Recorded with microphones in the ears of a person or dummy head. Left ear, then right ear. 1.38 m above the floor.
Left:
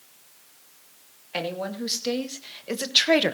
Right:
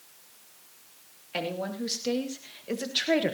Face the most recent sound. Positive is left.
turn(degrees=40)  # may be behind; listen again after turning